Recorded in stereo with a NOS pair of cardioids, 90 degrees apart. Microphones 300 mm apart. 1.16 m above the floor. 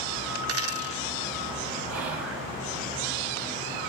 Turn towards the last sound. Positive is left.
turn(degrees=-55)